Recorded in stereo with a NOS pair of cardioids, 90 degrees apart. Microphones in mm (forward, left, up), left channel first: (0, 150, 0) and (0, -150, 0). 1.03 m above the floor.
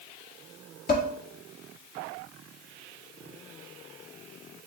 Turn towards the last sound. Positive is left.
turn(degrees=30)